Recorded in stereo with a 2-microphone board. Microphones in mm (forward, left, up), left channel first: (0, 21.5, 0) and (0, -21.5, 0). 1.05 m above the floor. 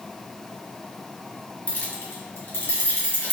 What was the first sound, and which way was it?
Keys jangling, 40° left (ahead or behind).